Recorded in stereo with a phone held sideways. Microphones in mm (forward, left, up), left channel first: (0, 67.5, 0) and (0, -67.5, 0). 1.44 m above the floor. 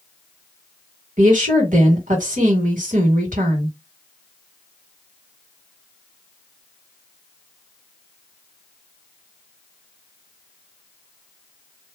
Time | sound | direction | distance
1.2 | a woman speaking | 75° right (ahead or behind) | 2 m